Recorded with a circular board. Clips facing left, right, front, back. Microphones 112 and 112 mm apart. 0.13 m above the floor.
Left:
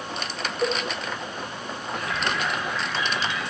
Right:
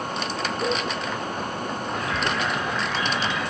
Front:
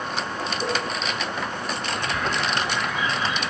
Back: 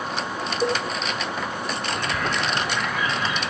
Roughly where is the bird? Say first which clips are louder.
Even, front 1 dB; behind right.